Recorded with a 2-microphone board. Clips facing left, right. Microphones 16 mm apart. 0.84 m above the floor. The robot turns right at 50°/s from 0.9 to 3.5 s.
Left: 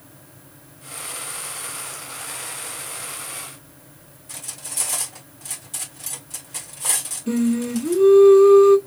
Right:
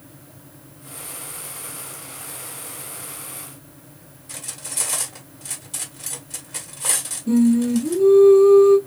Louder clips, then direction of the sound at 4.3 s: Right 1 dB; 10° right (ahead or behind).